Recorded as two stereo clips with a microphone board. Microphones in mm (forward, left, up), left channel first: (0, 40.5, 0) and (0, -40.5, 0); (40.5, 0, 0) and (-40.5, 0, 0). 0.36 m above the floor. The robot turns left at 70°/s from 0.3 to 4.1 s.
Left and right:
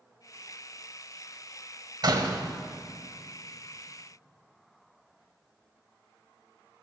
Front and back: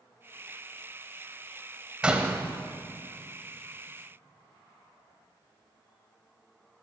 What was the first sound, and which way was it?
A door slam, 105° right.